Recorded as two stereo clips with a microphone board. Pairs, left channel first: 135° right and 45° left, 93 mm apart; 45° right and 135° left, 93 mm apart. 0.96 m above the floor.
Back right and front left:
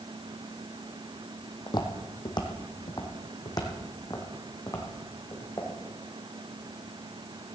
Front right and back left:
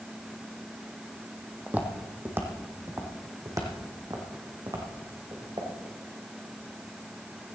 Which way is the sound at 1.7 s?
155° right.